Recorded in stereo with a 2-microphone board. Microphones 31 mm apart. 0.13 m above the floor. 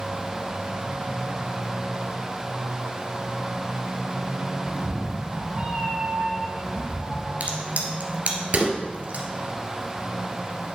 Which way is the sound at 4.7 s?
30° right (ahead or behind).